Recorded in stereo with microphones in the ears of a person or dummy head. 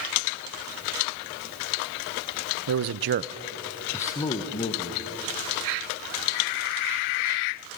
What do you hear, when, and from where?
2.7 s a man speaking: 65° right (ahead or behind), 0.8 m; by 5.0 s 30° left (ahead or behind), 1.8 m